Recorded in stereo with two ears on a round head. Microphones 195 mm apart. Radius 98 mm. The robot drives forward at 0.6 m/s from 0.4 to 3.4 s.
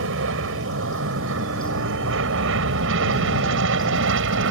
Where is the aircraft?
65° right (ahead or behind).